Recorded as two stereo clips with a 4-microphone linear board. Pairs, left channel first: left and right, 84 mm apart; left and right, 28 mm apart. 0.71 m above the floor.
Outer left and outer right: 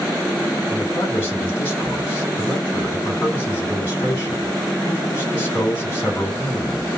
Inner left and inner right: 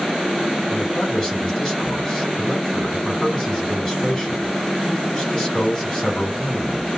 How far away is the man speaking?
About 3.5 m.